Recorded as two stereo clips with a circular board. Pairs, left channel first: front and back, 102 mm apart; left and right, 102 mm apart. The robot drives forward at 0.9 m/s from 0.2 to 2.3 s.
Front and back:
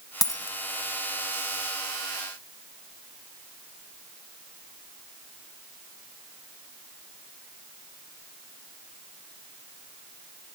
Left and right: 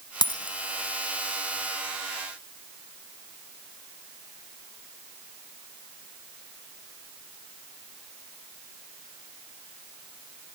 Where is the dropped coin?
50° left, 2 m; by 0.6 s 55° left, 1.9 m.